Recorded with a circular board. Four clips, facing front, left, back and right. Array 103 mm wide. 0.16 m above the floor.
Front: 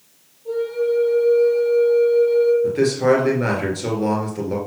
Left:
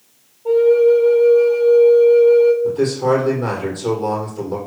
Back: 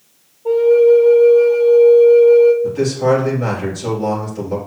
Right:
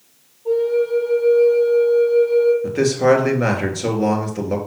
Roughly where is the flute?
Behind left.